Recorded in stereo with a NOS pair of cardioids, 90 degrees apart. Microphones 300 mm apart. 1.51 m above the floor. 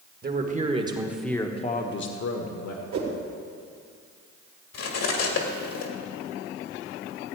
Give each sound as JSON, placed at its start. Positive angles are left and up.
{"t": 0.2, "sound": "a man speaking", "azimuth_deg": -30, "distance_m": 2.0}
{"t": 2.9, "sound": "a whoosh", "azimuth_deg": -60, "distance_m": 2.5}
{"t": 4.7, "sound": "cutlery clinking", "azimuth_deg": 60, "distance_m": 1.9}